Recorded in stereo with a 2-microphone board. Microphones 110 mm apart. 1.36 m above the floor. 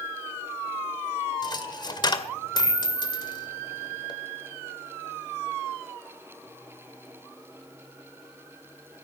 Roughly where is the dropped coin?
Left.